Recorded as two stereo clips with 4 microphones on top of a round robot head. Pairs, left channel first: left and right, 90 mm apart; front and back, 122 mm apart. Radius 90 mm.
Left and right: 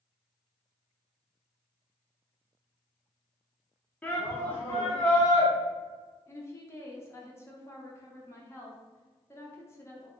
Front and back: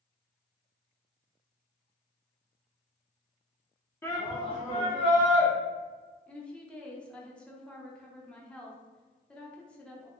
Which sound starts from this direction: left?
A woman speaking, at 6.3 s.